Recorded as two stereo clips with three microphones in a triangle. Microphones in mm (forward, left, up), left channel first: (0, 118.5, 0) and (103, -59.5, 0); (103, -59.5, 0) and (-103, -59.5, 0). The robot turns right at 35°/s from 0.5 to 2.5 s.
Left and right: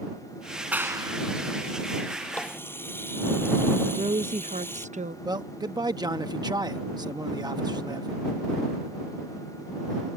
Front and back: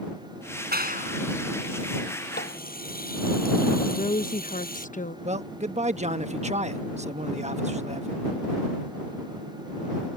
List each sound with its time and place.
0.7 s a clap: 145° right; by 1.2 s 125° right
2.3 s a running tap: 35° left; by 4.9 s 40° left
3.9 s a woman speaking: 25° right
5.2 s a man speaking: 125° right